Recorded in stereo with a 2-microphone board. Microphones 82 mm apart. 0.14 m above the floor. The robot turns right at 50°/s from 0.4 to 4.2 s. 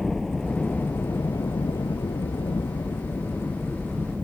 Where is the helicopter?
5° left; by 4.2 s 165° right.